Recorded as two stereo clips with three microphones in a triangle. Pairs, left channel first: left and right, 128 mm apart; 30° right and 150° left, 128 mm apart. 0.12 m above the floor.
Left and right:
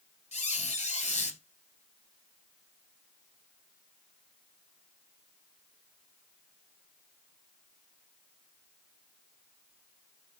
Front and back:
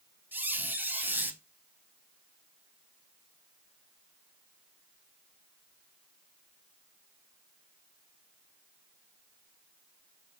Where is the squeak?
80° left, 0.6 m.